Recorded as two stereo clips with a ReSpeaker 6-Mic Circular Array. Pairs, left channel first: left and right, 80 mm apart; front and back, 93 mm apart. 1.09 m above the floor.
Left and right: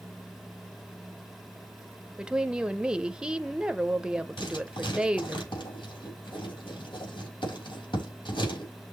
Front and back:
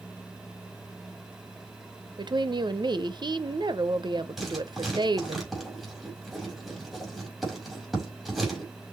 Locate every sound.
2.2 s a woman speaking: 170° right, 0.7 m
4.4 s writing: 90° left, 5 m